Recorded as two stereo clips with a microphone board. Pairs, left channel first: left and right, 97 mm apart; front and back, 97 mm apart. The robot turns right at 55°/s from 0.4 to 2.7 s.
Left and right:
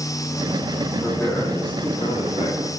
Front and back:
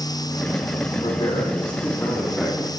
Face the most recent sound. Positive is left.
turn(degrees=110)